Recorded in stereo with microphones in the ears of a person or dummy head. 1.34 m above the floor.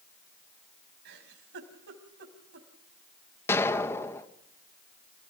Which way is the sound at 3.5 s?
15° left (ahead or behind).